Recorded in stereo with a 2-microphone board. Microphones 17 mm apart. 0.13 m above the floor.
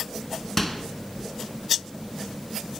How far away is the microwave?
About 1.0 m.